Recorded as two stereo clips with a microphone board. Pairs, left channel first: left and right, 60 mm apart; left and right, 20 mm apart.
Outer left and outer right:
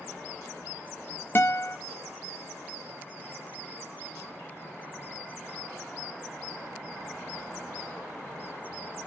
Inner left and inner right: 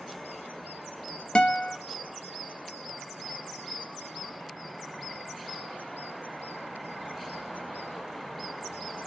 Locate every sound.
1.4 s a guitar: 35° left (ahead or behind), 0.6 m